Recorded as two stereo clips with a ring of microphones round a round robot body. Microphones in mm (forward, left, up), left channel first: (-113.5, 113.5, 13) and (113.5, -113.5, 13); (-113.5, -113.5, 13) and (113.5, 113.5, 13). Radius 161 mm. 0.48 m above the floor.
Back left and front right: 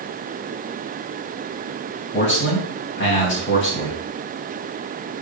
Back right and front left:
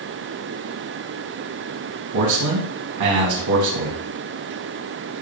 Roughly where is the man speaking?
Left.